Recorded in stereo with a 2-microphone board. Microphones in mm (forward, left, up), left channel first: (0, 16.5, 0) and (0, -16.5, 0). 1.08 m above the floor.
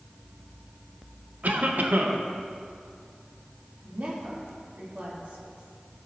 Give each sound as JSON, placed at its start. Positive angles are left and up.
{"t": 1.4, "sound": "a cough", "side_deg": -60, "distance_m": 1.1}
{"t": 3.8, "sound": "a woman speaking", "side_deg": -50, "distance_m": 2.5}